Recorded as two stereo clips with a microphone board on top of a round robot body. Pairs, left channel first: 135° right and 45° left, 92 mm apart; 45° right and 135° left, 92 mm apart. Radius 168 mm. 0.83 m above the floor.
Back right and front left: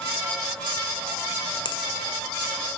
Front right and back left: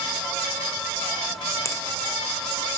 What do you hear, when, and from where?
1.6 s a finger snap: 100° right, 0.7 m